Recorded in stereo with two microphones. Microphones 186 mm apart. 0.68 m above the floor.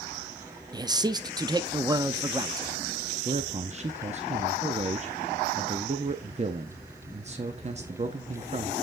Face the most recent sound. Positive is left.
turn(degrees=-35)  # may be behind; listen again after turning